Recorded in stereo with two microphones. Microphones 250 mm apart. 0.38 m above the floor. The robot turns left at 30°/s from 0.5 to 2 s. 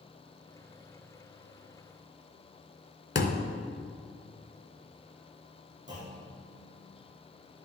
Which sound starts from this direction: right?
A clunk, at 5.9 s.